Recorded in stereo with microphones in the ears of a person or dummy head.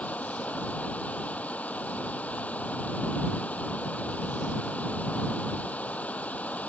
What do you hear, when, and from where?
0.0 s running water: 15° left (ahead or behind)